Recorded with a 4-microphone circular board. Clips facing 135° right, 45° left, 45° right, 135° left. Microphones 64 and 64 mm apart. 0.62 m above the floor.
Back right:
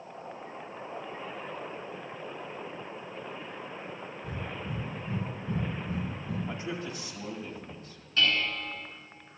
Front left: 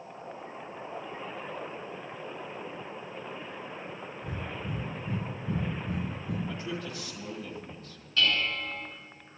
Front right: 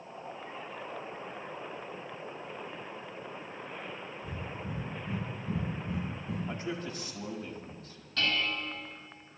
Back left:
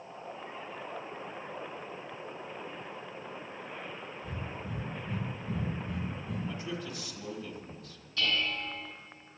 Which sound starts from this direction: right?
A man speaking, at 6.5 s.